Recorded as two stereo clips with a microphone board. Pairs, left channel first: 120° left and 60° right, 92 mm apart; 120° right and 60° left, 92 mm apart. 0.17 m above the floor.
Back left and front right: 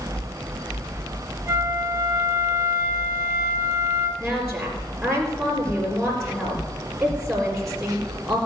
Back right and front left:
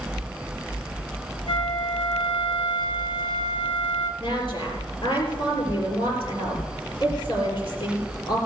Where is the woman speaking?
150° right, 3.5 m.